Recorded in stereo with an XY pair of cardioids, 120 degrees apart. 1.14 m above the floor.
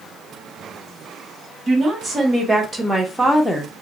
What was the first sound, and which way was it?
A woman speaking, 30° right.